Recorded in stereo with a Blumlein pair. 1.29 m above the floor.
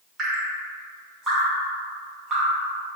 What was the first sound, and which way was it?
Dripping, 20° right.